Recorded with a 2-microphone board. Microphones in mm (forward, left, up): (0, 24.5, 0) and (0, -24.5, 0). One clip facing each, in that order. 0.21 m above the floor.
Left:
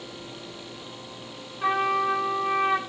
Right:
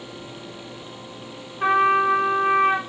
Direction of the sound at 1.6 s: 35° right (ahead or behind).